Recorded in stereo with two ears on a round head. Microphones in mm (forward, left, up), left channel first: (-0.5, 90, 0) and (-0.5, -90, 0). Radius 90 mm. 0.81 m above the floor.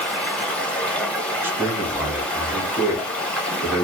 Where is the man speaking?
10° right (ahead or behind), 1.1 m.